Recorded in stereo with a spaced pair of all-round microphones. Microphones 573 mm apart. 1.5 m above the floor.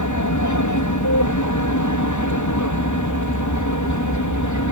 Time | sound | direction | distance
0.0 | an aircraft | 30° left (ahead or behind) | ?